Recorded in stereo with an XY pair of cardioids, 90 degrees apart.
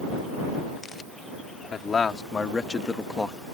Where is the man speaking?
50° left; by 3.4 s 15° left.